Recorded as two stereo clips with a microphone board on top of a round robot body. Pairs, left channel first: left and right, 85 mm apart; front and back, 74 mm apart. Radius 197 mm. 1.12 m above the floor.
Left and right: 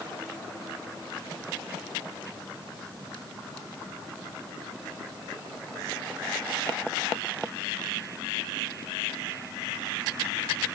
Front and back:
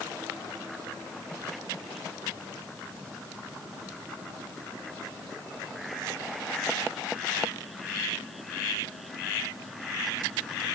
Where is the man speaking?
I don't hear a man speaking.